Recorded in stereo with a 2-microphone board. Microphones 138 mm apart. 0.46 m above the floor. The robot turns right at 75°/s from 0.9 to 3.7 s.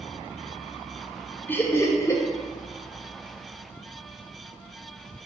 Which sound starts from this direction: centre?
Laughter, at 1.5 s.